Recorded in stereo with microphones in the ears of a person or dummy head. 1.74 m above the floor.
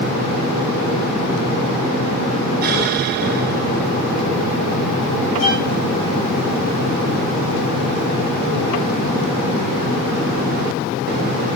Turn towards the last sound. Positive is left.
turn(degrees=45)  # may be behind; listen again after turning